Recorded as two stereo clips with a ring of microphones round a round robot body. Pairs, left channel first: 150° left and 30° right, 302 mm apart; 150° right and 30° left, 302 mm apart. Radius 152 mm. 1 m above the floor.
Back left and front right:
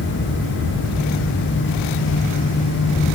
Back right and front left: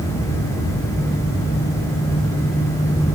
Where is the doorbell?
No doorbell in this recording.